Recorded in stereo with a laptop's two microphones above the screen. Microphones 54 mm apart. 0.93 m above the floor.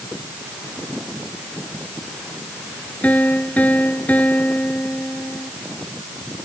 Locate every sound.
3.0 s a piano: 25° left (ahead or behind)